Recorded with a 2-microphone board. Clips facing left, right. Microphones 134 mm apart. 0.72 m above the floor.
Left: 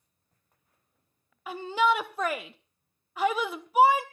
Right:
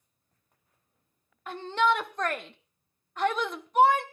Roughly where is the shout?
Centre.